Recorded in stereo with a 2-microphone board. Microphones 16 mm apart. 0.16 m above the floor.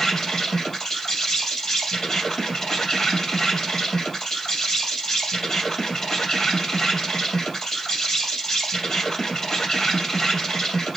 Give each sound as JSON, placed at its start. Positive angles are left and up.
{"t": 0.0, "sound": "an insect", "side_deg": 20, "distance_m": 4.0}